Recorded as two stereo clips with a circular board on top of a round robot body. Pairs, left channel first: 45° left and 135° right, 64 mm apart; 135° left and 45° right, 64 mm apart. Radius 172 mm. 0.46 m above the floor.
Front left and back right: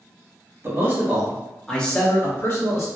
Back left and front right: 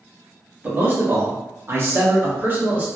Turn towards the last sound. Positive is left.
turn(degrees=10)